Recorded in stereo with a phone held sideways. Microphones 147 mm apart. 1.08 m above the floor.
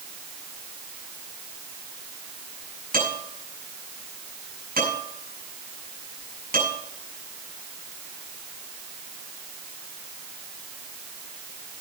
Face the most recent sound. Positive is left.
turn(degrees=-90)